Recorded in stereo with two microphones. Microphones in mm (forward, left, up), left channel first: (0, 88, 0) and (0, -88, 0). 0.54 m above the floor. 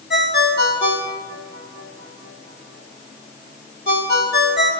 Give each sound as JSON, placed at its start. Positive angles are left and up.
{"t": 0.1, "sound": "a ringtone", "side_deg": 85, "distance_m": 2.0}